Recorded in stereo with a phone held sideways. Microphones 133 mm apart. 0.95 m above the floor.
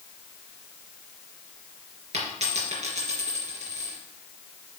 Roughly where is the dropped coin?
Right.